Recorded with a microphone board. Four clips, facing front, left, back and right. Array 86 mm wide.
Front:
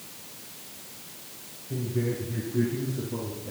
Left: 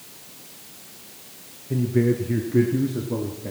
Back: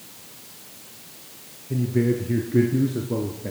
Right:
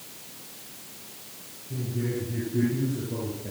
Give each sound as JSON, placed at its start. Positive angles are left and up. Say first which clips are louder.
{"t": 1.7, "sound": "a man speaking", "louder": "left 10 dB, back 7 dB", "azimuth_deg": 115, "distance_m": 3.0}